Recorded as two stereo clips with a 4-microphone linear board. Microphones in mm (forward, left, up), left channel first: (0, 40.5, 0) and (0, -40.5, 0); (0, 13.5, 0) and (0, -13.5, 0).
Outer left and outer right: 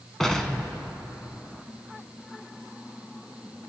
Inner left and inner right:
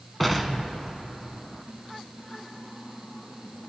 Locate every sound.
0.2 s an explosion: 5° left (ahead or behind), 0.9 m